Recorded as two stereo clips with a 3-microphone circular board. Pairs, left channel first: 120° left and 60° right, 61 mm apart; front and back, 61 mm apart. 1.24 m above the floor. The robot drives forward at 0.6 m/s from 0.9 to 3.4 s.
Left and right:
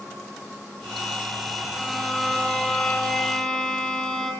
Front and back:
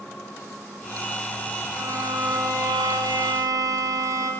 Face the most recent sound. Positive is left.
turn(degrees=-160)